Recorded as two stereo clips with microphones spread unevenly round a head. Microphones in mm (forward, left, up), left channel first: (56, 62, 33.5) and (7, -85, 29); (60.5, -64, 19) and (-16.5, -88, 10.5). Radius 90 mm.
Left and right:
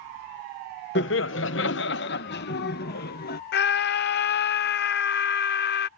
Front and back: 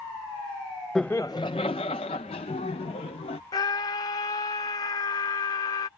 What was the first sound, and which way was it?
Laughter, 105° left.